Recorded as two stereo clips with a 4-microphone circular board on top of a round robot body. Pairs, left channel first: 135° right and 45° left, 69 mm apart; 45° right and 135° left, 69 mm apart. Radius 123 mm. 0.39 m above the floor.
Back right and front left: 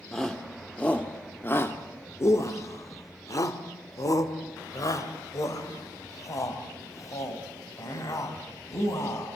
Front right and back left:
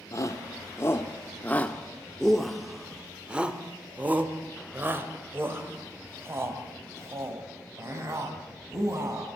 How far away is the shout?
About 1.6 m.